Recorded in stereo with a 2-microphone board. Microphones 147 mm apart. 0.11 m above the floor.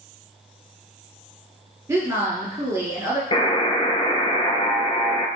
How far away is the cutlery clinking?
No cutlery clinking in this recording.